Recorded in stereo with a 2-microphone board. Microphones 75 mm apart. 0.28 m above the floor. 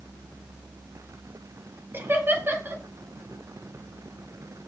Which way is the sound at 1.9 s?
30° right (ahead or behind).